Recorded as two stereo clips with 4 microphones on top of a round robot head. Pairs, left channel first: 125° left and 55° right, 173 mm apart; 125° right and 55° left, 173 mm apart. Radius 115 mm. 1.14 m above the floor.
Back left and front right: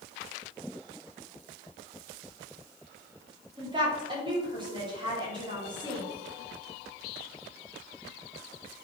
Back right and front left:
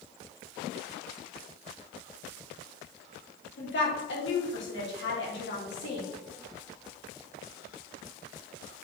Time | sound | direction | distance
3.6 | a woman speaking | 120° right | 4 m